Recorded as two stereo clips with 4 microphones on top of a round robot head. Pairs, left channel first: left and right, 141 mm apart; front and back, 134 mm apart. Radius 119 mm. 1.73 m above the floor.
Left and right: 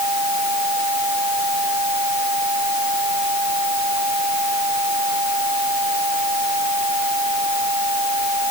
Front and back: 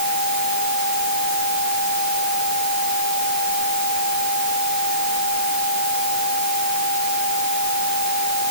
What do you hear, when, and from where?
Only background noise.